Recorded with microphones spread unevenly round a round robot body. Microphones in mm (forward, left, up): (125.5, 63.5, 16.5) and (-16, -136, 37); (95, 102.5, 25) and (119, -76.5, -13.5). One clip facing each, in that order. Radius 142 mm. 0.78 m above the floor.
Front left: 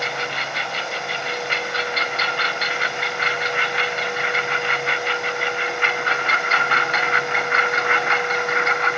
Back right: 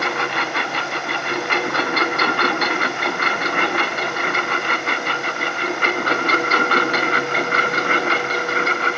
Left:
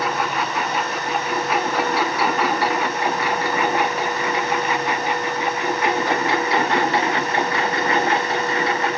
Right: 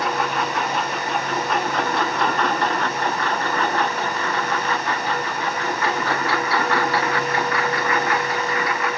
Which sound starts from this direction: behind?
A lawn mower, at 0.0 s.